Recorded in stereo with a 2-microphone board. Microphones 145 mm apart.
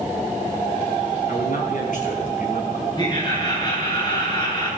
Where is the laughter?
30° left (ahead or behind), 6.5 m.